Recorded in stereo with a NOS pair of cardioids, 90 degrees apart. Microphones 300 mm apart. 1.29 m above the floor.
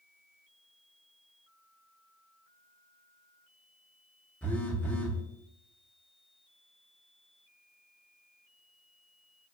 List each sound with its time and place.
4.4 s a phone buzzing: 5° left, 0.5 m